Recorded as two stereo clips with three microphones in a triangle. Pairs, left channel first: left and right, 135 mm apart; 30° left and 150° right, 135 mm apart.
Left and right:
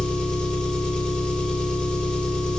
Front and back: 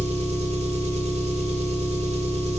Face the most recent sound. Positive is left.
turn(degrees=170)